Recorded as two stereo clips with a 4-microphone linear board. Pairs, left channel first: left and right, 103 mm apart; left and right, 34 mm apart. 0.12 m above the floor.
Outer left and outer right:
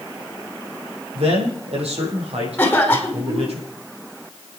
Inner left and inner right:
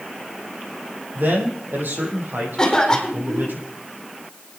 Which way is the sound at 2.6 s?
15° left (ahead or behind).